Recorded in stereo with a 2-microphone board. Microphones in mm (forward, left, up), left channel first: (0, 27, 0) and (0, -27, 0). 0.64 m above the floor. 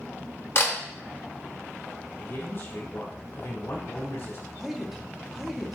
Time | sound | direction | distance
0.6 | a camera shutter | 45° left (ahead or behind) | 0.8 m
2.2 | a man speaking | 60° left (ahead or behind) | 1.8 m
4.6 | a man speaking | 5° right (ahead or behind) | 0.7 m